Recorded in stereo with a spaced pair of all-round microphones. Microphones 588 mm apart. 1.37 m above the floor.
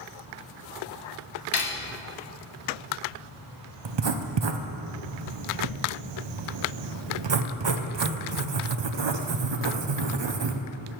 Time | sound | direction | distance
1.5 | cutlery clinking | 45° left (ahead or behind) | 0.7 m
3.9 | writing | 50° right (ahead or behind) | 0.6 m